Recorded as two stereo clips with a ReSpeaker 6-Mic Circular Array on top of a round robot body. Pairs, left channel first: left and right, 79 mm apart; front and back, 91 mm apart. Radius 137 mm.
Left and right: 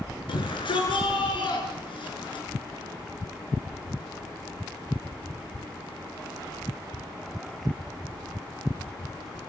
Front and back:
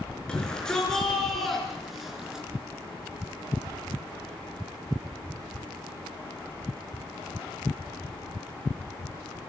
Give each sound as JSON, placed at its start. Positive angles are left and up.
{"t": 0.3, "sound": "a shout", "azimuth_deg": 80, "distance_m": 5.5}